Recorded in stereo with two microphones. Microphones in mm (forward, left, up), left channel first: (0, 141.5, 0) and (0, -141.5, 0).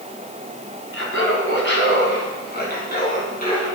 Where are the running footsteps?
I don't hear running footsteps.